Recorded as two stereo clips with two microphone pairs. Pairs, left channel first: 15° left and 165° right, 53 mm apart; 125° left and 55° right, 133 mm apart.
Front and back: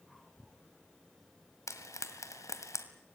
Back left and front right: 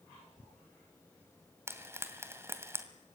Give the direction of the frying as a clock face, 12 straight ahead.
11 o'clock.